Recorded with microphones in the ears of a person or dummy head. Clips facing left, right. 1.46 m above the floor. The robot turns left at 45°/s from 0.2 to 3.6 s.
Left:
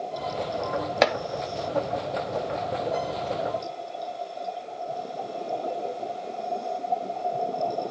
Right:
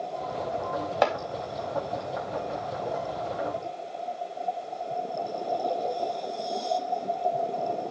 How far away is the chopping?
About 1.9 m.